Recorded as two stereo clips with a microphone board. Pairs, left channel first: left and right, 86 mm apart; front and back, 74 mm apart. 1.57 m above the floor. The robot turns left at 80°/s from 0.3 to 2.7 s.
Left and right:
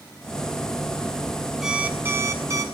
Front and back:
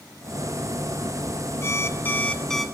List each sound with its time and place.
1.6 s an alarm clock: 5° right, 1.1 m; by 2.6 s 85° right, 1.1 m